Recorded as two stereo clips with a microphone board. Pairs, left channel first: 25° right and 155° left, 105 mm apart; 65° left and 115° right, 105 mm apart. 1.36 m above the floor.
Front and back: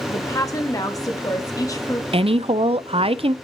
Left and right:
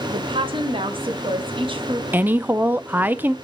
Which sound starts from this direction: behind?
A woman speaking, at 2.1 s.